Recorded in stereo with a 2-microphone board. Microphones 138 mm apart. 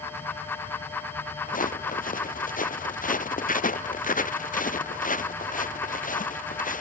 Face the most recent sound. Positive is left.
turn(degrees=80)